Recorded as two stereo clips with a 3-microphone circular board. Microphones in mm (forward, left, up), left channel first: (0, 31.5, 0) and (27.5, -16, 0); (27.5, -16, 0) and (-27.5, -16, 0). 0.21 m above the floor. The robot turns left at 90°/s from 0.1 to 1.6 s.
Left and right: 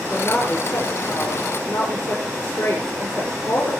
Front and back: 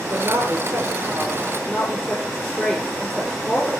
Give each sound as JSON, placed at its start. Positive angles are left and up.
{"t": 0.1, "sound": "a woman speaking", "azimuth_deg": -140, "distance_m": 5.0}